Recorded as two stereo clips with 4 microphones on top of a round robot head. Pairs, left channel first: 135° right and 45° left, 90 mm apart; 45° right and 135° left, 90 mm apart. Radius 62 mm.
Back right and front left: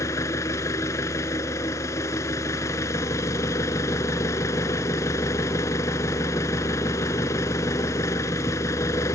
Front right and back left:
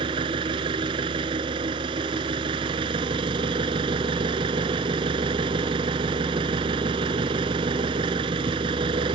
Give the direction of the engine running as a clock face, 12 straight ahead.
6 o'clock.